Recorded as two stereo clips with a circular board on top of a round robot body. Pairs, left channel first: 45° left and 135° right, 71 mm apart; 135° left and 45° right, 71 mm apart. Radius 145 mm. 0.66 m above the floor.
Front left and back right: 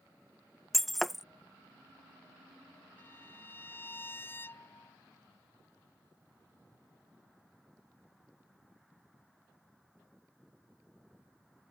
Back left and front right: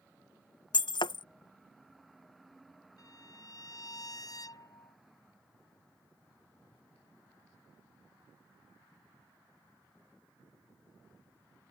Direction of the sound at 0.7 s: 135° left.